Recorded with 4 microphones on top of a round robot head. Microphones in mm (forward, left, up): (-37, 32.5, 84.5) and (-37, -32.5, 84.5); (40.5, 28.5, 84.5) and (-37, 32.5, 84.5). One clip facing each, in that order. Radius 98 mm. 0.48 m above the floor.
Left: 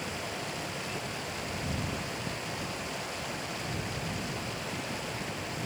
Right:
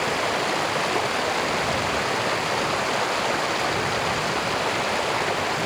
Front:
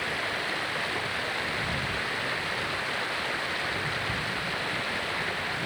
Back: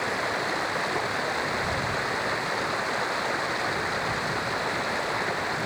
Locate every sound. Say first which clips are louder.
0.0 s running water: right 13 dB, back 4 dB; 115° right